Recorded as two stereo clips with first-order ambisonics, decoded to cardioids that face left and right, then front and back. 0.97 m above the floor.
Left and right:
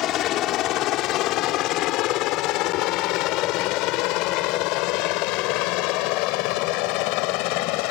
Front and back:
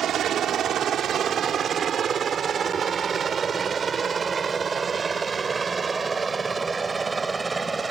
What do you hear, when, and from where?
0.0 s a helicopter: 130° left; by 7.9 s 100° left